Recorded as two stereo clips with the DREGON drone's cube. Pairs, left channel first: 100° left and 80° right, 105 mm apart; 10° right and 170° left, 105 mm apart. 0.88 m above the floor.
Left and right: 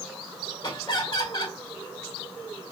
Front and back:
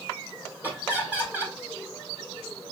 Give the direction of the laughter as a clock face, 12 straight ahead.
9 o'clock.